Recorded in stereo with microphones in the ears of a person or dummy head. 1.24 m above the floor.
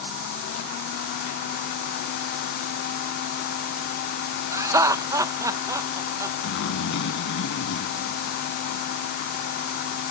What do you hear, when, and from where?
4.5 s laughter: 15° right (ahead or behind)
6.4 s a zipper: 70° left (ahead or behind)